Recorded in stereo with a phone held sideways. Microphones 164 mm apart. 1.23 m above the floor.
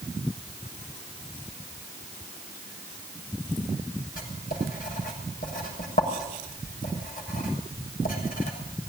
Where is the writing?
60° left (ahead or behind), 7 m.